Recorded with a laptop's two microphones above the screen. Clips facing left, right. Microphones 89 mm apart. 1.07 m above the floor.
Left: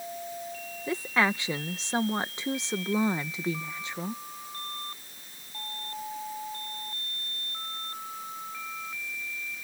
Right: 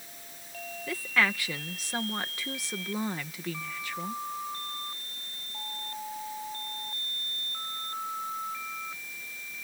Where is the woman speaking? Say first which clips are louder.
Left 2 dB; 25° left (ahead or behind).